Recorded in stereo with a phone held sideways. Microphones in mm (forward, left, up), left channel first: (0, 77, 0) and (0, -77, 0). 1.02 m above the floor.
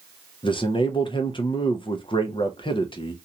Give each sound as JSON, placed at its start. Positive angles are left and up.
{"t": 0.4, "sound": "a man speaking", "side_deg": 35, "distance_m": 0.5}